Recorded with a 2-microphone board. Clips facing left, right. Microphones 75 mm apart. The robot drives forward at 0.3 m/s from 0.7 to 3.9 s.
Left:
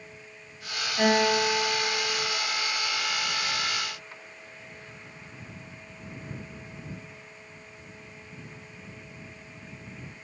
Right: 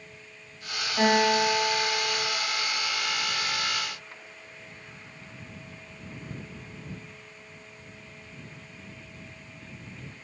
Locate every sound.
1.0 s a guitar: 25° right (ahead or behind), 1.2 m